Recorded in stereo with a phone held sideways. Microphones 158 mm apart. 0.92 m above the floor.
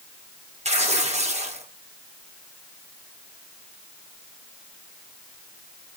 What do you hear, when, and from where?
0.7 s tearing paper: 45° right (ahead or behind), 1.7 m